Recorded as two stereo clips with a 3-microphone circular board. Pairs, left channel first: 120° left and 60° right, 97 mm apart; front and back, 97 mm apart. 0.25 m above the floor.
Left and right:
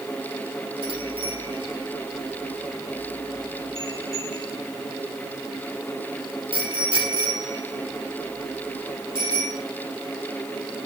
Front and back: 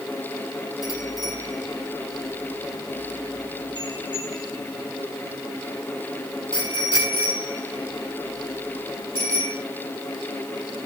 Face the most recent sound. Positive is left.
turn(degrees=-30)